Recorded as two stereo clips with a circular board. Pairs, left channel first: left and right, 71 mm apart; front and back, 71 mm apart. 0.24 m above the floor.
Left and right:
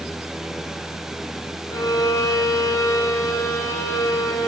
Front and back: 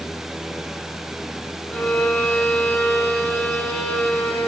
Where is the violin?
70° left, 0.8 m.